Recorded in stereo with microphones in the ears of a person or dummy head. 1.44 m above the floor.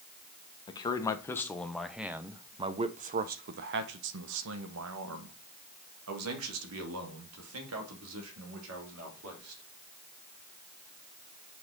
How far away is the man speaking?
About 1.2 m.